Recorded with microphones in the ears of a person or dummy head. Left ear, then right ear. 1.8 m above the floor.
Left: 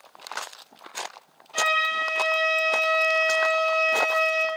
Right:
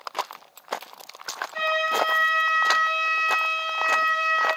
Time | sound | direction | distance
1.5 | a flute | 55° left (ahead or behind) | 1.3 m